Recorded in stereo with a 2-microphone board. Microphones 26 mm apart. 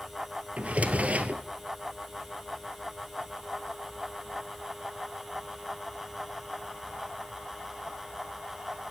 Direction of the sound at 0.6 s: 65° right (ahead or behind).